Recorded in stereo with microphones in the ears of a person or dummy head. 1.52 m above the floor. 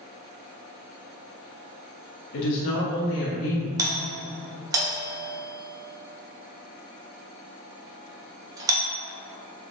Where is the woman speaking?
55° left (ahead or behind), 0.6 m; by 3.7 s 80° left, 1.3 m.